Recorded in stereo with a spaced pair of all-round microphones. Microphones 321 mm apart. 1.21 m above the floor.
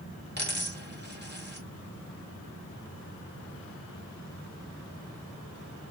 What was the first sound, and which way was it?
A dropped coin, 35° right (ahead or behind).